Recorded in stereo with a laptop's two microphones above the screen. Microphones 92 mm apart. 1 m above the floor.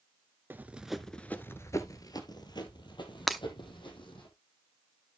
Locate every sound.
0.5 s running footsteps: 25° right (ahead or behind), 1.0 m; by 4.3 s 70° left (ahead or behind), 3 m
3.3 s breaking glass: centre (ahead or behind), 0.6 m